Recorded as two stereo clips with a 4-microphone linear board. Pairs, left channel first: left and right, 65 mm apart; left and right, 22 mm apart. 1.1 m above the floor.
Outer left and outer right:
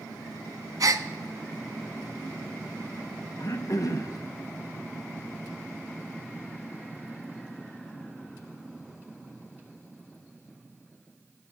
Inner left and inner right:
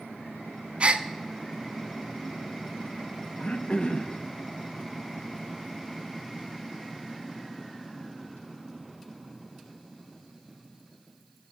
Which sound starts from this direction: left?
Throat clearing, at 3.4 s.